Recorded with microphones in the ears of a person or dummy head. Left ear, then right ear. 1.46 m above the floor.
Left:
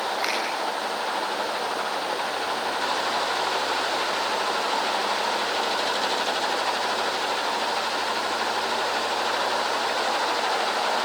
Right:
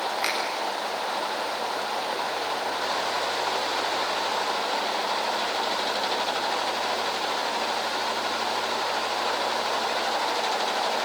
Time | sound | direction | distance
0.2 | a finger snap | 10° right (ahead or behind) | 8.5 m